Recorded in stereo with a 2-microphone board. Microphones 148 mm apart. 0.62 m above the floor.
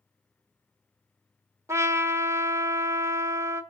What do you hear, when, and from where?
1.7 s a trumpet: 20° right (ahead or behind), 1.0 m